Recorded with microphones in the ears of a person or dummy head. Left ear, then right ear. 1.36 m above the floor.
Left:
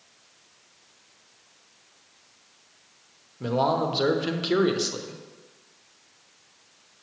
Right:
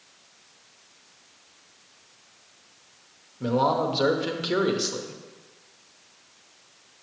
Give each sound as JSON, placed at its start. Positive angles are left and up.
{"t": 3.4, "sound": "a man speaking", "side_deg": 5, "distance_m": 0.8}